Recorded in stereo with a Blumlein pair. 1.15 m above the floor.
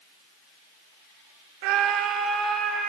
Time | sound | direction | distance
1.6 | a scream | 45° right | 0.6 m